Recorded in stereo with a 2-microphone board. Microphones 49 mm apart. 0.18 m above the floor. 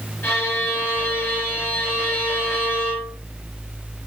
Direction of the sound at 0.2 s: 40° left (ahead or behind).